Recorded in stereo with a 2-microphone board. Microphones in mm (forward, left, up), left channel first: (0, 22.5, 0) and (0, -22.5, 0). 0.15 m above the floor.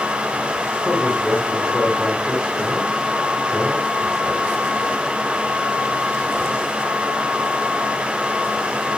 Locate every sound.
0.8 s a man speaking: 10° right (ahead or behind), 9.5 m